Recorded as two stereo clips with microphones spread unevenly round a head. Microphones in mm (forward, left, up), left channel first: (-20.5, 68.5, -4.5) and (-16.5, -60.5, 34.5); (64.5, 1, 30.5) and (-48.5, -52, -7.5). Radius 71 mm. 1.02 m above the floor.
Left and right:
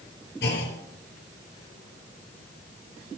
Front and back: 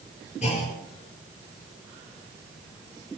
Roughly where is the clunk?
Ahead left.